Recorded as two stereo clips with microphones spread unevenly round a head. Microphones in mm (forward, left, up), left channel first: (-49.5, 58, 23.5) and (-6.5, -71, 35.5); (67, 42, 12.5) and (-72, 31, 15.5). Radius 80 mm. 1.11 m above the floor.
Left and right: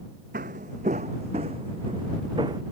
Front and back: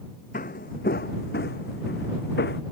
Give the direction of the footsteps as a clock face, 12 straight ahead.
1 o'clock.